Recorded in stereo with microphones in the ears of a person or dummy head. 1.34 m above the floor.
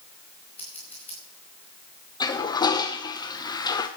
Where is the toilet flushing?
20° left (ahead or behind), 0.8 m.